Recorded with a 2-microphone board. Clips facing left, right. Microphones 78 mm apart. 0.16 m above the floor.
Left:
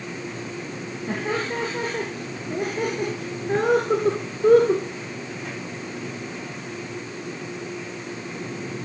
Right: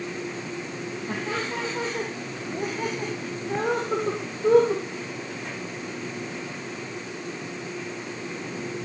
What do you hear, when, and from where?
1.1 s laughter: 45° left (ahead or behind), 3 m; by 4.8 s 55° left (ahead or behind), 2 m